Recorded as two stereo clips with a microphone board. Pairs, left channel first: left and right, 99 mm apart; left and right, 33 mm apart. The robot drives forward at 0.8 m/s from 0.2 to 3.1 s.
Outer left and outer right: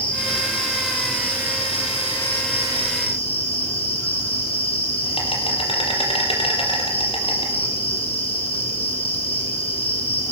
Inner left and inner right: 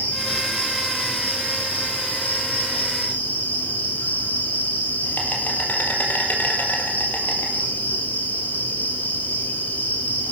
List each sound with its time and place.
0.0 s an insect: 60° left (ahead or behind), 6 m; by 10.3 s 70° left (ahead or behind), 5 m